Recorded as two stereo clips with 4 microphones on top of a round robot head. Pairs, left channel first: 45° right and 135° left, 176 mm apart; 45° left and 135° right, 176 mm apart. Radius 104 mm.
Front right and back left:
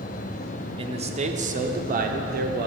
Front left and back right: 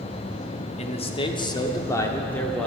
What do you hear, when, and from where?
0.8 s a man speaking: 85° left, 1.3 m; by 2.7 s 125° left, 1.6 m